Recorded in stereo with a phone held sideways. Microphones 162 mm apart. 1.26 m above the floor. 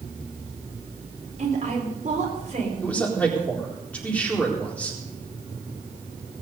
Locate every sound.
1.4 s a woman speaking: 45° right (ahead or behind), 4.5 m
2.8 s a man speaking: 10° left (ahead or behind), 4 m